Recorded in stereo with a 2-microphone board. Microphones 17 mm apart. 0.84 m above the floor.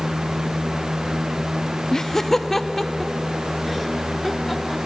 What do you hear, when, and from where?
1.9 s laughter: 30° left (ahead or behind), 0.7 m; by 4.8 s 10° right (ahead or behind), 2.5 m